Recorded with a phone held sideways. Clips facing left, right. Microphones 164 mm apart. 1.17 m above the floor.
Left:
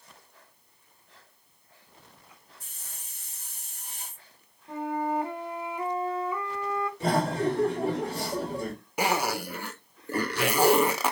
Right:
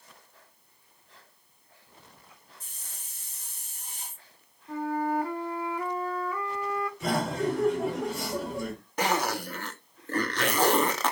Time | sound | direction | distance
2.6 | a hiss | 65° left (ahead or behind) | 2.5 m
4.7 | a flute | 20° left (ahead or behind) | 0.8 m
7.0 | laughter | 35° left (ahead or behind) | 3 m
9.0 | a zipper | 10° left (ahead or behind) | 0.6 m